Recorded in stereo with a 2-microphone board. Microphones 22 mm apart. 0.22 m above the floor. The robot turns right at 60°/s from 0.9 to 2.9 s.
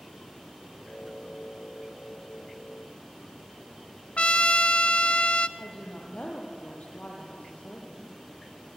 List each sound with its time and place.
4.2 s a trumpet: 65° left (ahead or behind), 0.7 m
5.6 s a woman speaking: 75° left (ahead or behind), 5.5 m